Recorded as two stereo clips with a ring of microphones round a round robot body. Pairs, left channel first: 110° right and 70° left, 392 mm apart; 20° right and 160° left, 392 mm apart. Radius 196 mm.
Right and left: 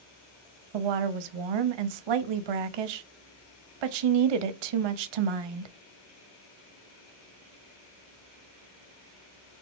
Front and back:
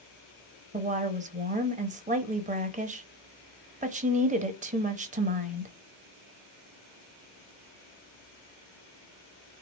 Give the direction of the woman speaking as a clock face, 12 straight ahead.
9 o'clock.